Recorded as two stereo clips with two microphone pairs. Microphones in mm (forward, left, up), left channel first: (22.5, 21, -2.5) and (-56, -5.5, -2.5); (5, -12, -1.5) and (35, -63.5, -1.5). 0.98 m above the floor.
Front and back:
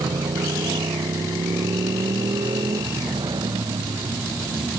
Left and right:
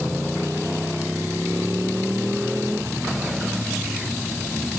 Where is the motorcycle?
145° right; by 4.8 s 135° right.